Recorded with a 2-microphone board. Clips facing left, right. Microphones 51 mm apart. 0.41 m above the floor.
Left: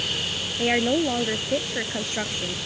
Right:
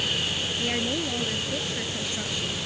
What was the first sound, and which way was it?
A woman speaking, 35° left (ahead or behind).